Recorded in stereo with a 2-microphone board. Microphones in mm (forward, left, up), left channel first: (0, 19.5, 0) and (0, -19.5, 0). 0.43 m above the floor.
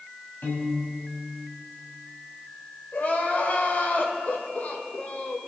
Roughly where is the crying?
Left.